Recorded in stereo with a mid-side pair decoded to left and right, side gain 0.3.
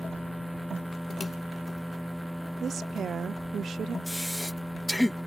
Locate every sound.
0.0 s a machine running: 5° left
2.6 s a woman speaking: 65° right
4.1 s breathing: 20° left